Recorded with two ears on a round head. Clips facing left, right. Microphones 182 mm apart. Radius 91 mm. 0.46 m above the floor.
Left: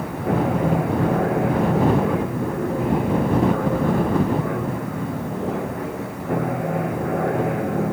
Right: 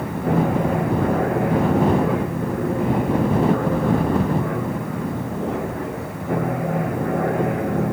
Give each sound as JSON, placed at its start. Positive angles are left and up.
{"t": 0.0, "sound": "an aircraft", "side_deg": 0}